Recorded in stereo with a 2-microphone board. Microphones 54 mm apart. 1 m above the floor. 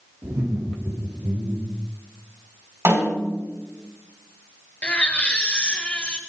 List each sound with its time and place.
0.2 s laughter: 55° right (ahead or behind), 2.5 m
2.9 s a snare drum: 60° right (ahead or behind), 6 m
4.8 s a baby crying: 25° left (ahead or behind), 1.6 m